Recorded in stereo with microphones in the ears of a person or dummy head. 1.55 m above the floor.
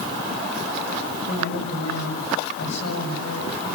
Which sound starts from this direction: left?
A woman speaking, at 1.3 s.